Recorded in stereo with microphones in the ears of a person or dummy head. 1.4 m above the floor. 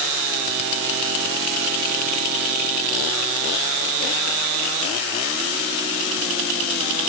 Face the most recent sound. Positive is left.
No sound to turn to.